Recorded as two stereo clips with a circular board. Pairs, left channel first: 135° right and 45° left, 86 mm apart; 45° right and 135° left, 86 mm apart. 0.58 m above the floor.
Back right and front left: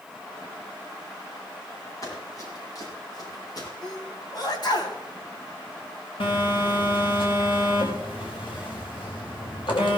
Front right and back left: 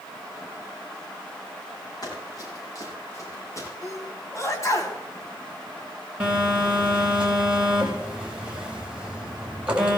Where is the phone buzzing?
145° right, 4 m.